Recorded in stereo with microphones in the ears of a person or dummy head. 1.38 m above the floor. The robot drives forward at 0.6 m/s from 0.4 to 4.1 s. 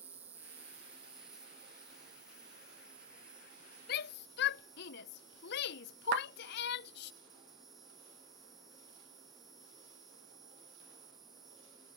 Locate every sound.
0.0 s an insect: 10° right (ahead or behind); by 12.0 s centre (ahead or behind)
3.9 s a shout: 55° left (ahead or behind); by 7.1 s 60° left (ahead or behind)
6.1 s a clap: 55° right (ahead or behind)